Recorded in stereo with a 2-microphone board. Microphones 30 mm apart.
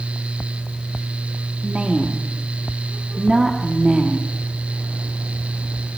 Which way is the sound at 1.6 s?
30° right (ahead or behind).